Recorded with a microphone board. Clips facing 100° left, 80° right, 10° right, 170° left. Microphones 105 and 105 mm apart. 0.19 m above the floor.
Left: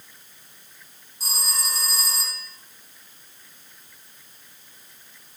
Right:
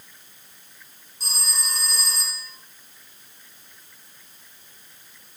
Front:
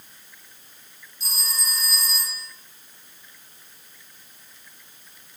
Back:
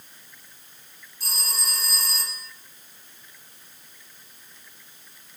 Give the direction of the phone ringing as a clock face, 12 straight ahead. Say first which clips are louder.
Left 2 dB, even; 6 o'clock.